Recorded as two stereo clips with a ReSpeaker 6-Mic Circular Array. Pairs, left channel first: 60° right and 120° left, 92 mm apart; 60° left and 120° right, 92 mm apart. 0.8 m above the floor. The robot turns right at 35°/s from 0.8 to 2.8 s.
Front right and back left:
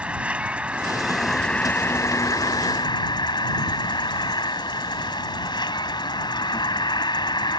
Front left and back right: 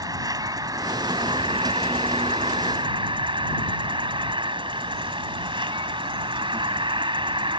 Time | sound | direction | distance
0.0 | an insect | 165° right | ?